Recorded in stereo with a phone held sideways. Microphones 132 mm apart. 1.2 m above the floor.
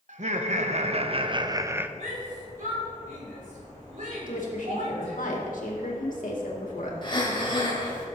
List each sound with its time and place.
0.1 s laughter: 65° right (ahead or behind), 1.1 m; by 1.9 s 10° right (ahead or behind), 0.5 m
2.0 s a shout: 75° right (ahead or behind), 3.5 m
4.2 s a woman speaking: 85° left, 2.5 m
7.0 s breathing: 35° left (ahead or behind), 2 m